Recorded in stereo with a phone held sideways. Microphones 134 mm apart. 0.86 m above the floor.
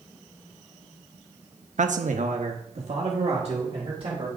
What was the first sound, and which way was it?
A man speaking, 65° right (ahead or behind).